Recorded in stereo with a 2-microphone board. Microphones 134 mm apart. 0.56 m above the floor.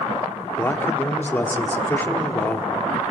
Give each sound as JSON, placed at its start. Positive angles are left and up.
{"t": 0.6, "sound": "a man speaking", "side_deg": 15, "distance_m": 1.2}